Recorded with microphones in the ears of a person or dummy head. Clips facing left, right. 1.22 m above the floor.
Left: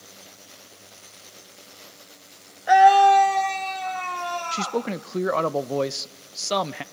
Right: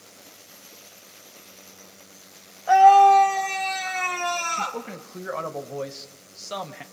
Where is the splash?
No splash in this recording.